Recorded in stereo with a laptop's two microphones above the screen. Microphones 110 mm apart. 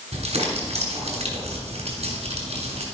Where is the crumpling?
75° right (ahead or behind), 3.5 m.